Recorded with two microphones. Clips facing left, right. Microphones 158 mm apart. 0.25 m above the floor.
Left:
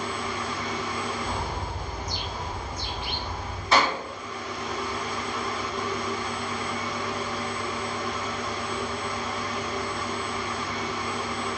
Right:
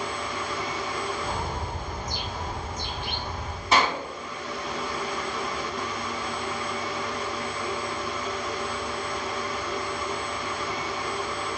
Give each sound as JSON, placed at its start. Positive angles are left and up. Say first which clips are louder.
{"t": 1.2, "sound": "a bird", "louder": "even", "side_deg": -50, "distance_m": 0.9}
{"t": 3.7, "sound": "a clap", "louder": "even", "side_deg": -20, "distance_m": 1.6}